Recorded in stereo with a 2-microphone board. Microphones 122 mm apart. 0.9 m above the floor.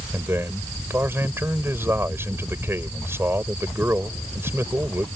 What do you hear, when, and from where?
0.1 s a man speaking: 20° right (ahead or behind)